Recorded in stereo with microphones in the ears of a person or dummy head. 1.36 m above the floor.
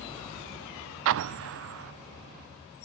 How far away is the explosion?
About 0.5 m.